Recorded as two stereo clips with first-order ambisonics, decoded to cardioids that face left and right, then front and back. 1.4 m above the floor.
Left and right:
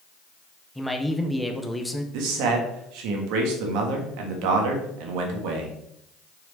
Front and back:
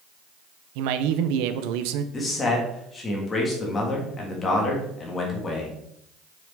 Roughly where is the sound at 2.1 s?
Right.